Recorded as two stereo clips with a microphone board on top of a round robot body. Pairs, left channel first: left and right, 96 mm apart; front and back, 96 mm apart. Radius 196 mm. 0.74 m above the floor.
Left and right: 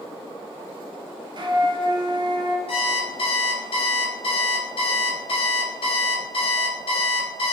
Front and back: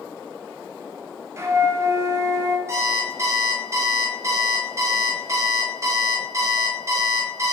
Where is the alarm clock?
120° left, 0.7 m.